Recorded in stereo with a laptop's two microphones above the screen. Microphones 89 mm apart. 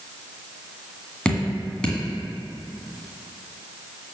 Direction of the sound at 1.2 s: 10° left (ahead or behind).